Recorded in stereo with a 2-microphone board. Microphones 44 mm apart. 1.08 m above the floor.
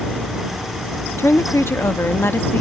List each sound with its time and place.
1.2 s a woman speaking: 85° left; by 2.6 s 50° left (ahead or behind)